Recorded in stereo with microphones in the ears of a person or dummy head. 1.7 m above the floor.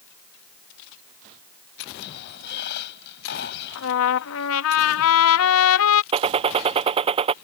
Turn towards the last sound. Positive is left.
turn(degrees=-35)  # may be behind; listen again after turning